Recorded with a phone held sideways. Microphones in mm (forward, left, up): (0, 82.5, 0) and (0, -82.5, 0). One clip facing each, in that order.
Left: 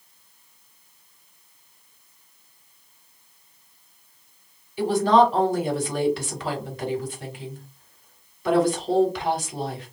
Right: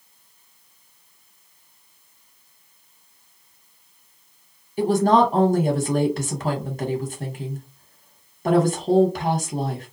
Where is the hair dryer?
No hair dryer in this recording.